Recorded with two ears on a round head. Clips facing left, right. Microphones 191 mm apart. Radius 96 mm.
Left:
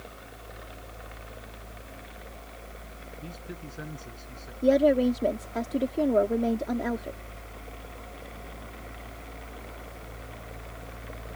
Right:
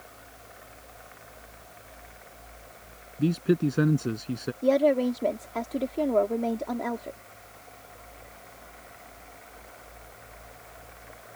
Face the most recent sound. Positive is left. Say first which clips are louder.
# left 1 dB
turn(degrees=10)  # may be behind; listen again after turning